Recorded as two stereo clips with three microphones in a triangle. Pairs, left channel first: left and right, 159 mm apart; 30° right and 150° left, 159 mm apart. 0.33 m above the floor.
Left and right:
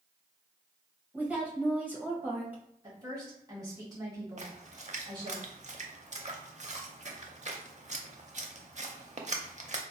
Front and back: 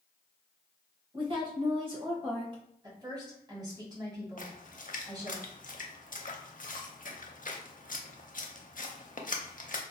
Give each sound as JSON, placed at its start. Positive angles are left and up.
{"t": 1.1, "sound": "a woman speaking", "azimuth_deg": -165, "distance_m": 1.2}
{"t": 2.8, "sound": "a woman speaking", "azimuth_deg": -150, "distance_m": 2.0}
{"t": 4.4, "sound": "a splash", "azimuth_deg": -50, "distance_m": 0.6}